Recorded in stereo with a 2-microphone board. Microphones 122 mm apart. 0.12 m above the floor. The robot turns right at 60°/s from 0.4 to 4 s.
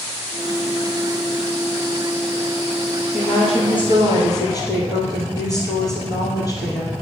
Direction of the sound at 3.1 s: 95° left.